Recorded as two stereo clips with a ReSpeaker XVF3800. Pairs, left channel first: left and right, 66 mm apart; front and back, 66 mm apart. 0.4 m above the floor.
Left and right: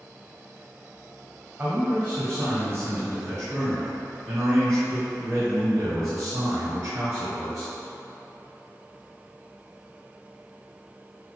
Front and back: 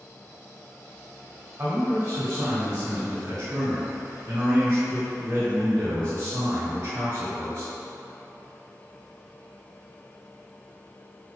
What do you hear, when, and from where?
1.6 s a man speaking: 140° right, 2.5 m; by 7.7 s 130° right, 5.5 m